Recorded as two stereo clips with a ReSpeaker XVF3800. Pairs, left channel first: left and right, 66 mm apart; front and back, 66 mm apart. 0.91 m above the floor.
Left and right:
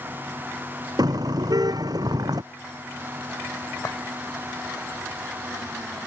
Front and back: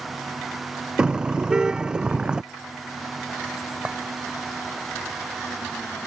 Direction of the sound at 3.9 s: 110° left.